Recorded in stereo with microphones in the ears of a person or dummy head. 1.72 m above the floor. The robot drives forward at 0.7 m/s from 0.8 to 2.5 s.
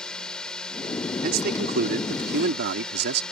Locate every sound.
0.0 s a drone: 5° left (ahead or behind)
1.2 s a man speaking: 50° right (ahead or behind); by 3.2 s 60° right (ahead or behind)